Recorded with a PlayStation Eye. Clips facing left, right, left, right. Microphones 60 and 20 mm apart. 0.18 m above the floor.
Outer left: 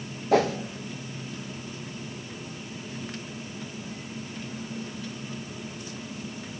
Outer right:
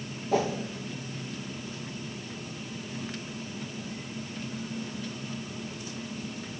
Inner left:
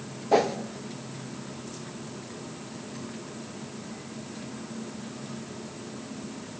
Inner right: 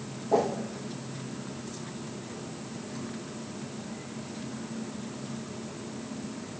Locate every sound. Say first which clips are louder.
0.3 s a whoosh: outer left 5 dB, inner left 3 dB; 70° left (ahead or behind), 0.6 m